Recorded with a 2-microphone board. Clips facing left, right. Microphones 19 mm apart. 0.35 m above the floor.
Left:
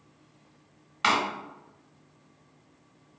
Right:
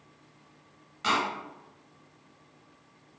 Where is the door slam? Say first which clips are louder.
Left 3 dB; 45° left (ahead or behind), 0.9 m.